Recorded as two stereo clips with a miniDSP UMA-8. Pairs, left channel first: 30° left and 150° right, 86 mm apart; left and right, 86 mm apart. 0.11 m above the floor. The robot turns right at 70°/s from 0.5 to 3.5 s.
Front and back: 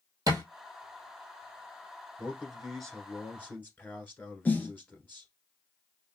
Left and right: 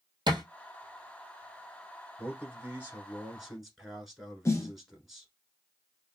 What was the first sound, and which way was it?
A thud, 110° right.